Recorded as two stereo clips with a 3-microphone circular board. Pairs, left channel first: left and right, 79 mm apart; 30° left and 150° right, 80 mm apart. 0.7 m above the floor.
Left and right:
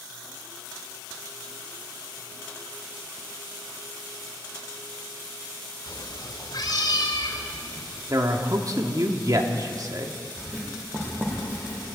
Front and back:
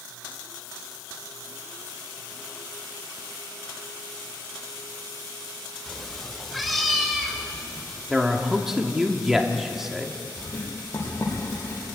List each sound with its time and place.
5.9 s a cat meowing: 115° left, 0.9 m; by 8.0 s 120° left, 4 m
8.1 s a man speaking: 65° right, 1.7 m
10.4 s writing: 25° right, 7.5 m